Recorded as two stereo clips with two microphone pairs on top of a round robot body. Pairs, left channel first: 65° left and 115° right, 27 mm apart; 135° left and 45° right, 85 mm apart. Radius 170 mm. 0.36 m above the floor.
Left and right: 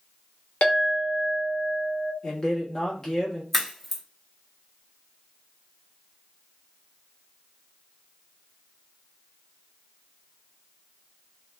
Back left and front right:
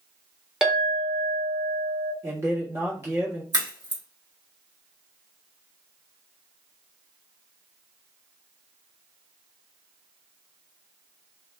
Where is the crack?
15° right, 1.5 m.